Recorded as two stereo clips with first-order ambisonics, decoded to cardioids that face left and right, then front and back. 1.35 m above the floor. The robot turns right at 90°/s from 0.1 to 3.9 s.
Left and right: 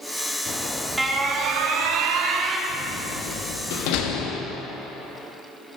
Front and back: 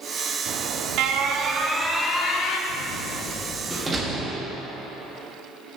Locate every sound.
0.5 s an alarm: 145° left, 0.8 m; by 2.6 s 25° right, 0.8 m
2.7 s a door slam: 5° right, 1.4 m; by 4.4 s 100° left, 1.4 m